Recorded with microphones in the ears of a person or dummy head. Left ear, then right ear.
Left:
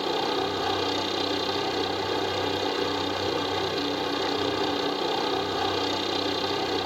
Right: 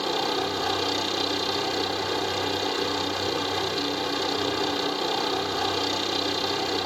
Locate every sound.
0.0 s a helicopter: 5° right (ahead or behind)